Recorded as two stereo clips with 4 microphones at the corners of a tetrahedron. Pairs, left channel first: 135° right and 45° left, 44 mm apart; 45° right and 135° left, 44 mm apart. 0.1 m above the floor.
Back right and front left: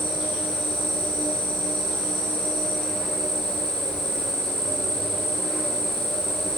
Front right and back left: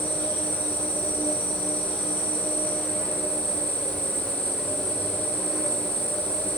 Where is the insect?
50° right, 2.0 m.